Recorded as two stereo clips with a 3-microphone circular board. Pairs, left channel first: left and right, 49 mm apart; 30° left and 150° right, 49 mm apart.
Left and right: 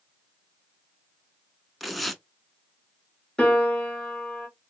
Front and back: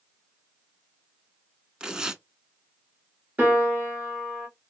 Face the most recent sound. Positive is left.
turn(degrees=165)